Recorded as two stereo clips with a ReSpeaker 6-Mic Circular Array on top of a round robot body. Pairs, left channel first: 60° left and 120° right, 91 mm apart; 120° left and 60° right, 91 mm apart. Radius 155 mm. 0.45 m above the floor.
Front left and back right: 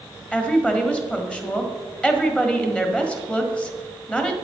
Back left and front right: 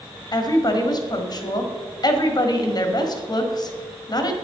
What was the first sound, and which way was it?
A woman speaking, 135° left.